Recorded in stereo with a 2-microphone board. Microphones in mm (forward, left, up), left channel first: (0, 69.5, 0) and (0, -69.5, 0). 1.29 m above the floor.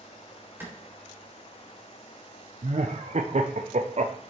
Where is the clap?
15° right (ahead or behind), 3.5 m.